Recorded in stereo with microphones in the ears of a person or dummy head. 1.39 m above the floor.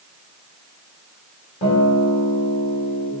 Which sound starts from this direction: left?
A guitar, at 1.6 s.